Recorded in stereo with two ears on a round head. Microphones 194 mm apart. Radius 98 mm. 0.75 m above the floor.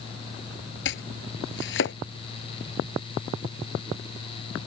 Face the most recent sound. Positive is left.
turn(degrees=65)  # may be behind; listen again after turning